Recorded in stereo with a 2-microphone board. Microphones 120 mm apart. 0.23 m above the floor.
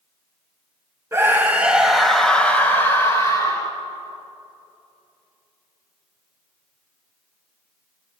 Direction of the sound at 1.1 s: 20° right (ahead or behind).